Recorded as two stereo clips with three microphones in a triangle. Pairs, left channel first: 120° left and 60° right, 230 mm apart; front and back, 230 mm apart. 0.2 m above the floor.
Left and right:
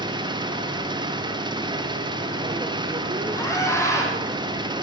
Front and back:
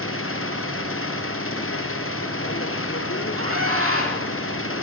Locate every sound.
0.0 s an engine running: 10° left, 2.5 m
3.4 s a scream: 165° right, 9.5 m